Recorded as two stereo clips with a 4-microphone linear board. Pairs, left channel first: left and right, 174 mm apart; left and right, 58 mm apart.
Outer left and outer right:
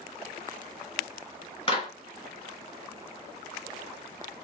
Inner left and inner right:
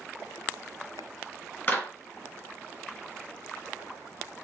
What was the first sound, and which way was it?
A clap, 30° left (ahead or behind).